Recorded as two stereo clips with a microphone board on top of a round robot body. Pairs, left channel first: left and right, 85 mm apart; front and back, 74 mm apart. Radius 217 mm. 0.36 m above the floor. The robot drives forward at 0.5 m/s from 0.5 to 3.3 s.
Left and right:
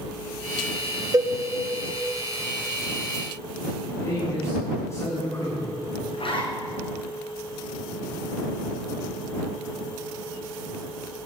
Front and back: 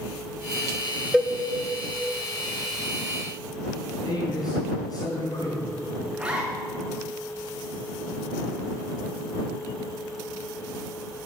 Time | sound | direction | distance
1.1 | a cowbell | 90° right | 1.4 m
4.0 | a man speaking | 35° left | 6.5 m
6.1 | a zipper | 100° left | 3.5 m